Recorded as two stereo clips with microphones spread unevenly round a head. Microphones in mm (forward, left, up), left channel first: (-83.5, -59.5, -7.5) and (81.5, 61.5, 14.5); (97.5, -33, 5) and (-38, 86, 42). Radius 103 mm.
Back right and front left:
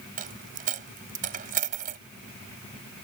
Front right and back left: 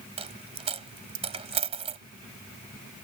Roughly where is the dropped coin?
Left.